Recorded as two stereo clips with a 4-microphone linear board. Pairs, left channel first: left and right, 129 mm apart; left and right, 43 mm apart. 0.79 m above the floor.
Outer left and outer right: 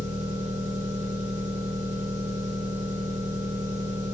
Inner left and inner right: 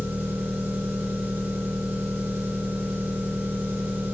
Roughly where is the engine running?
Right.